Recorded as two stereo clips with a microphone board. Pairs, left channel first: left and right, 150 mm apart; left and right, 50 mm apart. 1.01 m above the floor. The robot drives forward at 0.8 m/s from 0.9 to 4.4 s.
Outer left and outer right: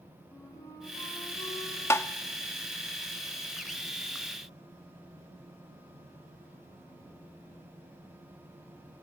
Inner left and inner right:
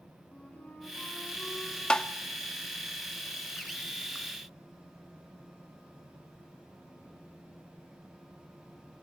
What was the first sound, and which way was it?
A flute, 20° left (ahead or behind).